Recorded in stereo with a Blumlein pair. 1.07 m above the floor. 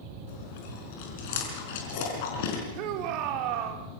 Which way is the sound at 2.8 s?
40° right.